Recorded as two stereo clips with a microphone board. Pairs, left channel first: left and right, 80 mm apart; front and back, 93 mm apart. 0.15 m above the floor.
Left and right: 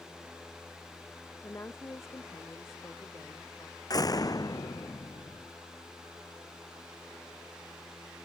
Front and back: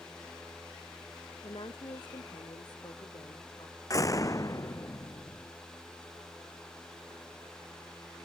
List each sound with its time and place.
1.4 s a woman speaking: 35° left; by 3.8 s 40° left
3.9 s a door slam: 50° left